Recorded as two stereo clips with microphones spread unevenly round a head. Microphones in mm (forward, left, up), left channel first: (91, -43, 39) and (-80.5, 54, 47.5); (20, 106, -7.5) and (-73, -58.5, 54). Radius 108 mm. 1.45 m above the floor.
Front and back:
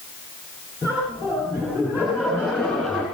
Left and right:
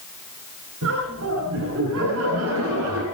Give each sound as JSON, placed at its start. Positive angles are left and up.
{"t": 0.8, "sound": "laughter", "azimuth_deg": -135, "distance_m": 10.0}